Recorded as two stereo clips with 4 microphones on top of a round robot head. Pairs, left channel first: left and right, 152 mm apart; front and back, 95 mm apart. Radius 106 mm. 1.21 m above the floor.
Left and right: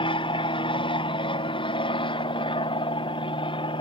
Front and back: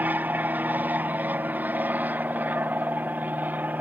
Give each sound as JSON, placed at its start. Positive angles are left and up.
{"t": 0.0, "sound": "an aircraft", "azimuth_deg": 120}